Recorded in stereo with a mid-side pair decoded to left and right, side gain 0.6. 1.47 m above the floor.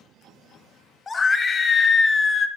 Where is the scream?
25° left, 0.9 m.